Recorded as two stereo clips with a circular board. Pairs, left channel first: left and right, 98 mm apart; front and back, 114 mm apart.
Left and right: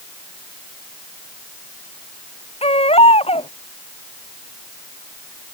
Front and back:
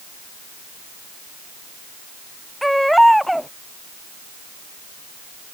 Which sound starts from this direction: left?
A baby crying, at 2.6 s.